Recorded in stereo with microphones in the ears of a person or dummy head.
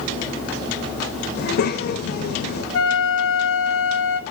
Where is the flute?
70° left (ahead or behind), 0.8 m.